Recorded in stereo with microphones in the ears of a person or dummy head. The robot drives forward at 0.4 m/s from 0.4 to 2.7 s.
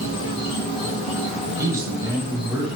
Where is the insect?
25° left (ahead or behind), 0.9 m; by 2.8 s 50° left (ahead or behind), 0.5 m.